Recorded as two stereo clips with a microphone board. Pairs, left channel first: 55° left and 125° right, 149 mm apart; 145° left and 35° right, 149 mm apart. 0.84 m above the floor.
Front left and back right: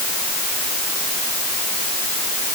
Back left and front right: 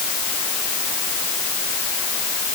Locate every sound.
Only background noise.